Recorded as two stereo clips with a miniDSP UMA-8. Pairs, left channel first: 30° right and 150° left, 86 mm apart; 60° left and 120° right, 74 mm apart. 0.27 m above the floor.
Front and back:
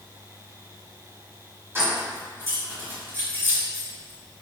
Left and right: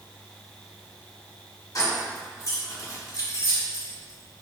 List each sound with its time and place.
1.8 s keys jangling: 90° left, 1.8 m